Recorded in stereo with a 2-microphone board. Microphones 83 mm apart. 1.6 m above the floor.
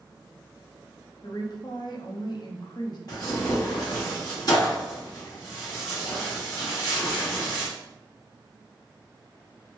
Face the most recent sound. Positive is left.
turn(degrees=55)  # may be behind; listen again after turning